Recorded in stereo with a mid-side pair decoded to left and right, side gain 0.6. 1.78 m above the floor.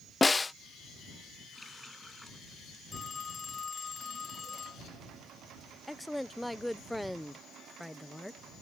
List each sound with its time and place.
0.2 s a snare drum: 20° left
1.5 s a running tap: 10° left
2.9 s a phone ringing: 30° left
5.9 s a woman speaking: 5° left